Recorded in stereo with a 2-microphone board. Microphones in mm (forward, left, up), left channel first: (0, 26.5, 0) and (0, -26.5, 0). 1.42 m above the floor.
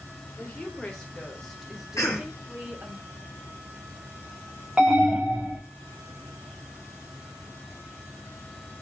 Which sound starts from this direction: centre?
An alarm, at 4.8 s.